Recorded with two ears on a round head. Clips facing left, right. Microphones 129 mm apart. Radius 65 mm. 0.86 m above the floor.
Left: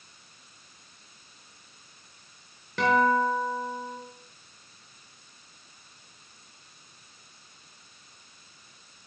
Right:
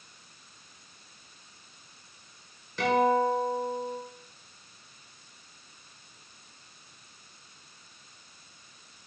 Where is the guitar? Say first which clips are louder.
Left 1 dB; 55° left (ahead or behind), 4.5 m.